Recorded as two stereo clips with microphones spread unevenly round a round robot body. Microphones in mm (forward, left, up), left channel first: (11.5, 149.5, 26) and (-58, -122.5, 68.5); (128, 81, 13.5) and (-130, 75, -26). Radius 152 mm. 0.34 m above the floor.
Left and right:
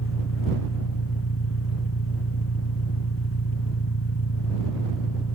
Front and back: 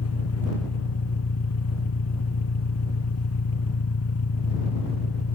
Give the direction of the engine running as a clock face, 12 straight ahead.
11 o'clock.